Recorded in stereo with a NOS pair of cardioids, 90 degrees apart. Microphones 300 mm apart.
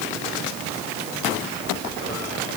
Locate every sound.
Only background noise.